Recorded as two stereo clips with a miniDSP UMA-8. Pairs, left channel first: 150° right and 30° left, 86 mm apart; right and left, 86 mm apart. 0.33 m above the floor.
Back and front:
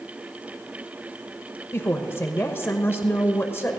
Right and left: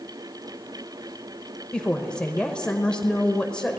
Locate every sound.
1.7 s a woman speaking: 160° right, 0.9 m